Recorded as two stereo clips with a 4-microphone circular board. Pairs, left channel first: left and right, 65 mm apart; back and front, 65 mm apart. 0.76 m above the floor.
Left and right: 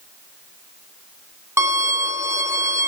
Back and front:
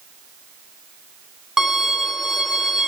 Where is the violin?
80° right, 0.5 m.